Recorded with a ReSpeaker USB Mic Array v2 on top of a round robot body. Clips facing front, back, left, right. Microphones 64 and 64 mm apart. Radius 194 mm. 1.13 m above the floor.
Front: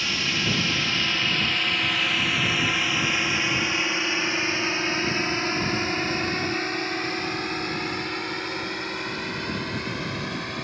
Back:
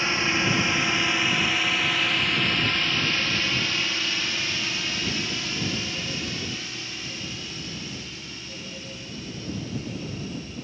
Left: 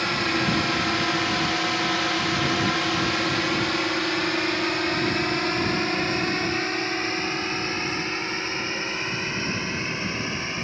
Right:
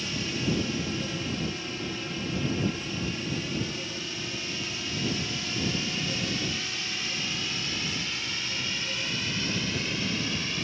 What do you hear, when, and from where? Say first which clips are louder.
0.0 s a drone: back 3 dB, left 8 dB; 120° left; by 10.7 s 30° left